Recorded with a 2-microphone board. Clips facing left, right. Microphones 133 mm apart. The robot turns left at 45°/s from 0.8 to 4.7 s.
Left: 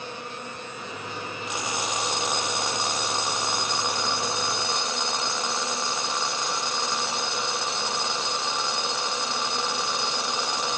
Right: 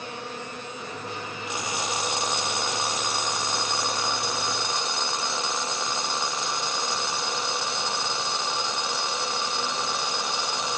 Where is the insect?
80° right, 10 m; by 10.8 s 105° left, 10 m.